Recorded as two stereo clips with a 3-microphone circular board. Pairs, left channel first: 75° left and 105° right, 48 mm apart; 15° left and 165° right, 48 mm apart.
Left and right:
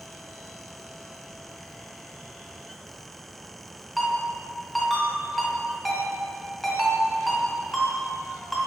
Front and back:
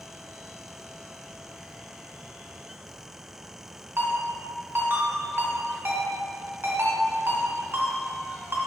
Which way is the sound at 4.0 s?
165° left.